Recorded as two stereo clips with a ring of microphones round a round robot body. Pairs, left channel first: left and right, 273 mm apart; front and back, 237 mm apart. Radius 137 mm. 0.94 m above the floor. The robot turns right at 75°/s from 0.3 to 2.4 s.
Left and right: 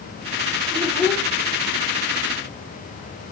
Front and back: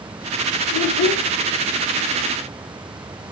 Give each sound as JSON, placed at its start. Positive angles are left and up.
{"t": 0.7, "sound": "a child speaking", "azimuth_deg": -20, "distance_m": 1.6}